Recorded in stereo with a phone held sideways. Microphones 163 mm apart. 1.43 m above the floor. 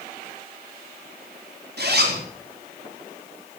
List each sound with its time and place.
1.8 s a zipper: 85° right, 4.5 m